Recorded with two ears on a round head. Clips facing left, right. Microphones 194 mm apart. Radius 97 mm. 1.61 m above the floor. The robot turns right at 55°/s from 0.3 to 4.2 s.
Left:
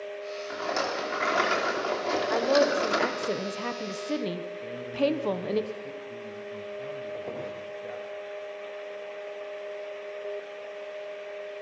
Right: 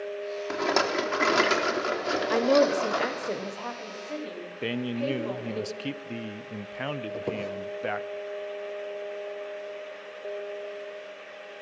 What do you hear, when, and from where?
0.5 s a rattle: 105° right, 2 m; by 3.3 s 50° left, 2 m
2.3 s a woman speaking: 45° right, 1.2 m; by 5.6 s 60° left, 1.2 m
4.6 s a man speaking: 85° right, 0.7 m
7.1 s a squeak: 50° right (ahead or behind), 2.5 m